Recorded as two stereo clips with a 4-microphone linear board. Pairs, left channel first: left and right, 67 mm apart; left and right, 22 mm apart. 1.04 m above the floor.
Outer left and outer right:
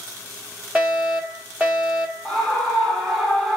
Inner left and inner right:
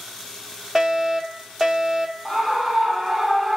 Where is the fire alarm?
15° right (ahead or behind), 2.5 m.